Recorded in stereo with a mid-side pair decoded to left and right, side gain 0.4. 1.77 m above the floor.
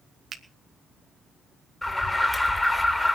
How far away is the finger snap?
About 1.6 m.